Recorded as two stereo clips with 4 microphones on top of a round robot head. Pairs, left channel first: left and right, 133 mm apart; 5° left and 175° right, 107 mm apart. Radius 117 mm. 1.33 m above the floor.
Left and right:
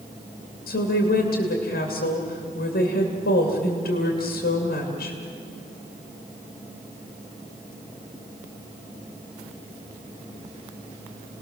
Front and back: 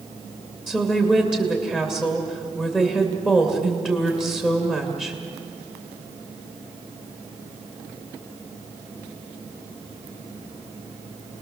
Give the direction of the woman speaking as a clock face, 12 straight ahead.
9 o'clock.